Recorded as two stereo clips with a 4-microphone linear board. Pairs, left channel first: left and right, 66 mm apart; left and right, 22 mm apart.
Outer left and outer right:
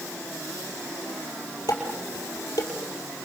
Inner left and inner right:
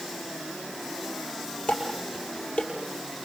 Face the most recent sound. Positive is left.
turn(degrees=80)